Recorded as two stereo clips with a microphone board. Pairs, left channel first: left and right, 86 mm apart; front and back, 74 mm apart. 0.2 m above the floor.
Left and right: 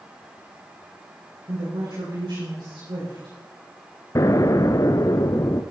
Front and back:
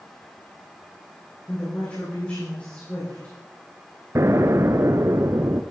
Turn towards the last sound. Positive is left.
turn(degrees=135)